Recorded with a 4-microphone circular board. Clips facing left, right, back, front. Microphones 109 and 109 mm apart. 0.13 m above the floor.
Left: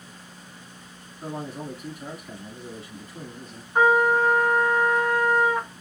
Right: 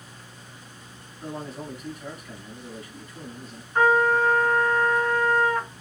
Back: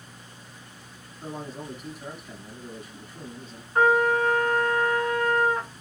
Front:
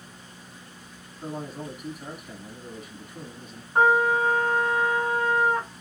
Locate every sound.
1.2 s a man speaking: 65° left, 1.6 m
3.8 s a trumpet: 30° left, 1.1 m